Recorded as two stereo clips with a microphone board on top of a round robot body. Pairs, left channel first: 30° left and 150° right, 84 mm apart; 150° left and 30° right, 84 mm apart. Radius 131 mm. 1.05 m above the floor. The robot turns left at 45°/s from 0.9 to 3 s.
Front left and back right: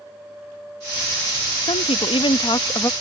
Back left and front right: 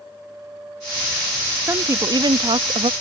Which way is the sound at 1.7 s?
30° left.